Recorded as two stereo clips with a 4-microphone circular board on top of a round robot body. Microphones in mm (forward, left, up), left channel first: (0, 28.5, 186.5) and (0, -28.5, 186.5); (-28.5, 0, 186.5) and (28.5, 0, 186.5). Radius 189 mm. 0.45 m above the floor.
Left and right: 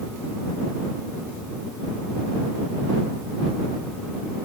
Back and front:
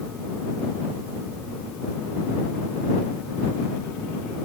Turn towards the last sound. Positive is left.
No sound to turn to.